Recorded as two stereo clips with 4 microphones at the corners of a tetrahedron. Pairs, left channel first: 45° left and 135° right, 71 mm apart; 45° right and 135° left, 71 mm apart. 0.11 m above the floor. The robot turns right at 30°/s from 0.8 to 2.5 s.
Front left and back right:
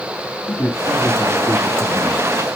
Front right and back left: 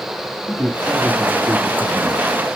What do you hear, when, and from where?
0.5 s a man speaking: 60° left, 2 m; by 2.3 s 105° left, 2 m